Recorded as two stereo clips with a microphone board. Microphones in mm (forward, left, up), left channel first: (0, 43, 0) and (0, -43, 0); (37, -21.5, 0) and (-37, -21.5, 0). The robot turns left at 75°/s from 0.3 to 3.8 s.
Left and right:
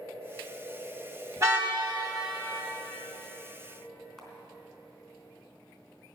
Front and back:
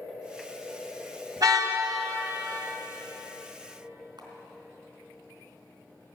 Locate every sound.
1.4 s a car horn: 140° right, 2 m; by 1.8 s 170° right, 2 m
4.2 s a camera shutter: 170° left, 3 m